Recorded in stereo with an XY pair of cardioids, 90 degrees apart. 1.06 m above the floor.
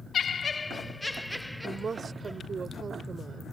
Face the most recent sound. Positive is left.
turn(degrees=-45)